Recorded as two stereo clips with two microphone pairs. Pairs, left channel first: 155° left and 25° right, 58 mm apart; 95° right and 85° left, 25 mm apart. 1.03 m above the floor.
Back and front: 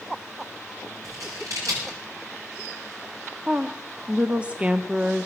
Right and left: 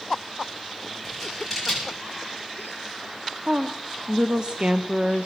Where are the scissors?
5° right, 7 m.